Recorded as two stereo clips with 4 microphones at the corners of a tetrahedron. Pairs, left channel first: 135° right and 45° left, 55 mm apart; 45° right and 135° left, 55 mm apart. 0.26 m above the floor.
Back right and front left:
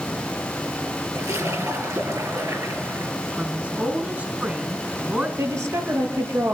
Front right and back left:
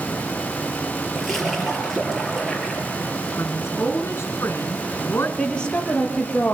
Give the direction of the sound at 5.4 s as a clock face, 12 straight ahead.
11 o'clock.